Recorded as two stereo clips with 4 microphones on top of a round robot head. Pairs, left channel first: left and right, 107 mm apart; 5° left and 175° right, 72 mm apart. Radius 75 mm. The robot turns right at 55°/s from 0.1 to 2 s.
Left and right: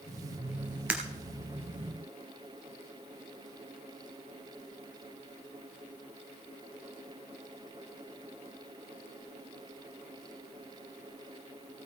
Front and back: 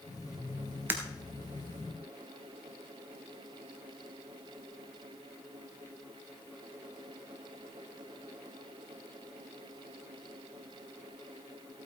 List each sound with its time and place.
0.9 s breaking glass: 160° right, 1.3 m; by 1.0 s 155° right, 1.3 m